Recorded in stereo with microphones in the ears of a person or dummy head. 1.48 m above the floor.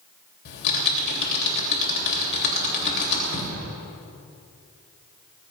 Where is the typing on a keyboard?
70° left (ahead or behind), 3 m.